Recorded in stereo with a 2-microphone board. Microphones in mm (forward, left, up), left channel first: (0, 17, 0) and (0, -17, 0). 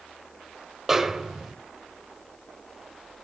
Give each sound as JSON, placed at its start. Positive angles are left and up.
{"t": 0.9, "sound": "a snare drum", "side_deg": -10, "distance_m": 1.3}